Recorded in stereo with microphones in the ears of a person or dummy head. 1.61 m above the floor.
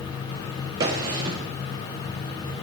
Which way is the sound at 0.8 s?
15° right (ahead or behind).